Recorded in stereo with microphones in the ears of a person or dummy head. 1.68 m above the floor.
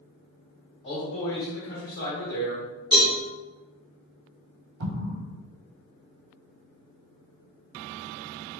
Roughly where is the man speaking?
Left.